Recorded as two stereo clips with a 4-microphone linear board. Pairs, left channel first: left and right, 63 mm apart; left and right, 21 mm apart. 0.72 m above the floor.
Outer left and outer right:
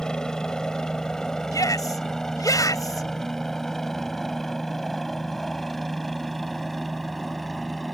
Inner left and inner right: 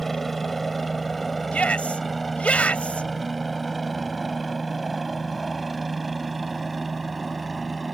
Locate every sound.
0.0 s a helicopter: 10° left (ahead or behind); by 8.0 s centre (ahead or behind)
1.5 s a shout: 65° left (ahead or behind)